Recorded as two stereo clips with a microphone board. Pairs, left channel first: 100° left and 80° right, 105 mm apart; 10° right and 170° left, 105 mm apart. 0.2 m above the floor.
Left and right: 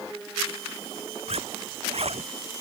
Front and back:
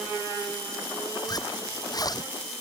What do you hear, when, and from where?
1.3 s a zipper: 65° right